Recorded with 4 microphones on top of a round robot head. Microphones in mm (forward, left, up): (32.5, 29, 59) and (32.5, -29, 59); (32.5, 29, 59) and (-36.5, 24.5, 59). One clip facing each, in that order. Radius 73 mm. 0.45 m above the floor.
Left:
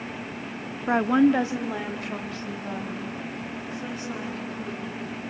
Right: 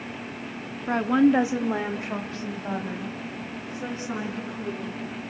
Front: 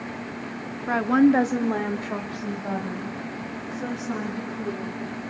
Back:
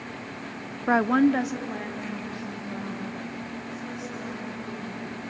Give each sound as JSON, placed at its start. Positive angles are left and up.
{"t": 0.9, "sound": "a woman speaking", "azimuth_deg": 145, "distance_m": 0.8}